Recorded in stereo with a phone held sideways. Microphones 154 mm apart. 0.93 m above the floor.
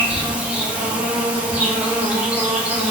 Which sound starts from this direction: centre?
An insect, at 0.0 s.